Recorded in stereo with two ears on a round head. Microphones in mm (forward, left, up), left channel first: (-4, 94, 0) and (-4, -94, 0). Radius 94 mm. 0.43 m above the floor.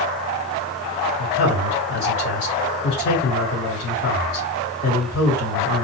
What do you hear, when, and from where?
1.2 s a man speaking: 50° left (ahead or behind), 3 m